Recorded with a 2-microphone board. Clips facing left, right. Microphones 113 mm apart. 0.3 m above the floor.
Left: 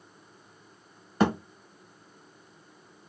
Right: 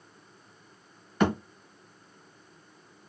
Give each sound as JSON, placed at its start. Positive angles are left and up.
{"t": 1.2, "sound": "a thud", "side_deg": 35, "distance_m": 1.4}